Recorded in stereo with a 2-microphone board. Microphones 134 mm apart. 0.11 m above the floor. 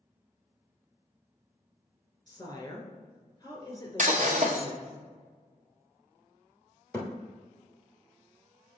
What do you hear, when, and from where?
2.3 s a woman speaking: 25° left (ahead or behind), 1.6 m
4.0 s breaking glass: 60° right (ahead or behind), 1.7 m
6.9 s a thud: 20° left (ahead or behind), 1.4 m